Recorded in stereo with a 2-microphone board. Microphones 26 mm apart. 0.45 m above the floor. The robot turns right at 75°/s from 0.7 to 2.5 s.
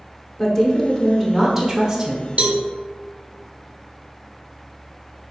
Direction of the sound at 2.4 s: 60° right (ahead or behind).